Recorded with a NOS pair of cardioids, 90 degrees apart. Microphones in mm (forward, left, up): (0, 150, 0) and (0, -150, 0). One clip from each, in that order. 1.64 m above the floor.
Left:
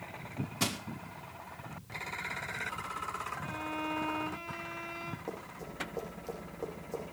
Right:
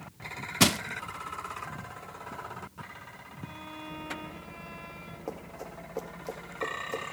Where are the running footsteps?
35° right, 5.5 m.